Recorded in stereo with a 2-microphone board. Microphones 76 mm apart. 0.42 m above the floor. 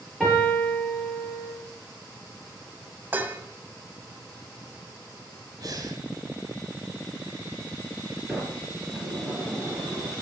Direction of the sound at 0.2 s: Centre (ahead or behind).